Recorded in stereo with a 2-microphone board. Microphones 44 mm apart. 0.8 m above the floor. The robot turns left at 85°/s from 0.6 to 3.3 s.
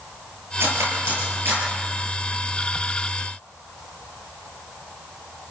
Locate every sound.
0.6 s cutlery clinking: 55° right (ahead or behind), 10 m; by 1.6 s 35° right (ahead or behind), 10 m